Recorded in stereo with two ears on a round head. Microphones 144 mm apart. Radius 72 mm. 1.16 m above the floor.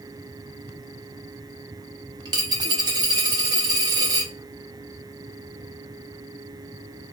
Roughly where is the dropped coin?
Right.